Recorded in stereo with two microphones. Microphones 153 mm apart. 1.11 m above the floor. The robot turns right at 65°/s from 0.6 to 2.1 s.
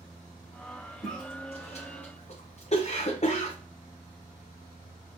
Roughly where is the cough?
Left.